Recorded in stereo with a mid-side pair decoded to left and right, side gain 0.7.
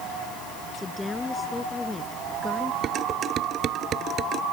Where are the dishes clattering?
40° right.